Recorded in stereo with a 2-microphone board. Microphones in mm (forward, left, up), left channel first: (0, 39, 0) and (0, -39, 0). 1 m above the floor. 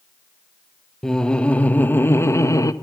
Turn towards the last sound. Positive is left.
turn(degrees=45)  # may be behind; listen again after turning